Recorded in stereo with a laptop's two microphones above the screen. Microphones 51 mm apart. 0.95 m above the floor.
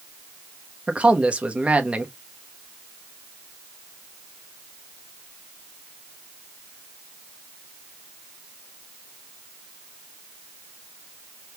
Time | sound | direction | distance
0.9 | a man speaking | 25° right (ahead or behind) | 0.9 m